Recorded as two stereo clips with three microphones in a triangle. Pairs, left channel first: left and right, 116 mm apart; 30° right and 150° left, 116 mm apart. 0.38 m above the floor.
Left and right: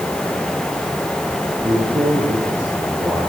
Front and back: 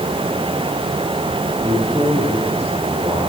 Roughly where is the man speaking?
Behind right.